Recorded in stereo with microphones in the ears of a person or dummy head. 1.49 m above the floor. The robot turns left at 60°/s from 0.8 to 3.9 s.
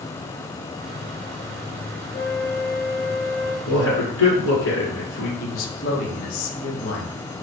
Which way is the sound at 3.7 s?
70° left (ahead or behind).